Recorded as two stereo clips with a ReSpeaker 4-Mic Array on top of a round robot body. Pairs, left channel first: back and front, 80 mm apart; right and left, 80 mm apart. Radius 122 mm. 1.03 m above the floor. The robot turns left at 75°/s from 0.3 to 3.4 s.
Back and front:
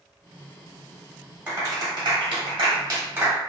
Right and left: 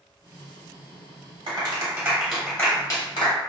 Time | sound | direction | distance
1.5 | a clap | 65° left | 1.2 m